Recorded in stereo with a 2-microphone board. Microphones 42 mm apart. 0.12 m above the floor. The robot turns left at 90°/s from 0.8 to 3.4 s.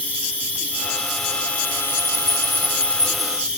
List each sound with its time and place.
0.0 s an insect: 145° right, 0.9 m; by 3.6 s 20° right, 0.9 m